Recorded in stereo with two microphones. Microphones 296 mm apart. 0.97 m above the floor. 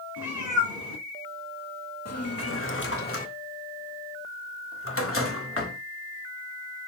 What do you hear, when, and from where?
0.2 s a cat meowing: 75° left (ahead or behind), 2.5 m; by 3.3 s 25° left (ahead or behind), 1.0 m
2.4 s a drawer: 45° left (ahead or behind), 1.8 m